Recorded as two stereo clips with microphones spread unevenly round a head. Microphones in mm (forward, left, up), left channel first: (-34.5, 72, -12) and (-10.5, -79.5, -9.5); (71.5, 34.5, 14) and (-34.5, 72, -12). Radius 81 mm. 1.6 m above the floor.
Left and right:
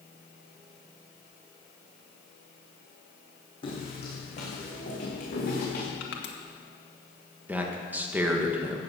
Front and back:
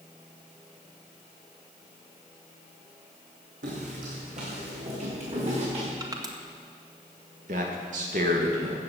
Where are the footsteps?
155° left, 4 m; by 5.9 s 125° left, 6 m.